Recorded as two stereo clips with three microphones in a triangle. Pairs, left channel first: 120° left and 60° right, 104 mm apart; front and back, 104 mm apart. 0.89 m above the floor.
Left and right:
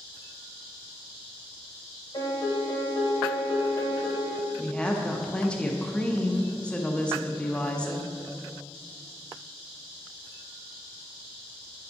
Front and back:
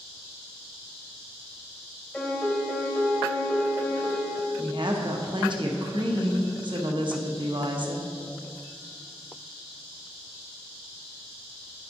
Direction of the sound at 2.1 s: 85° left.